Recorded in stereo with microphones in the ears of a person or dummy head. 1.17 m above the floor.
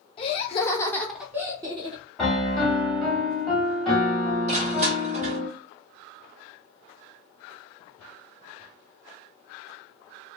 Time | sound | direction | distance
0.2 | laughter | 30° left (ahead or behind) | 0.8 m
2.2 | a piano | 10° left (ahead or behind) | 0.8 m
4.5 | crushing | 35° right (ahead or behind) | 0.9 m